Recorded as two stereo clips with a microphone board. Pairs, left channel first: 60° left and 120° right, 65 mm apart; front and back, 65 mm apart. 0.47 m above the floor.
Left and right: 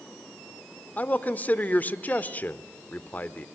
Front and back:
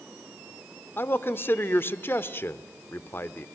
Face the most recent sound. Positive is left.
turn(degrees=15)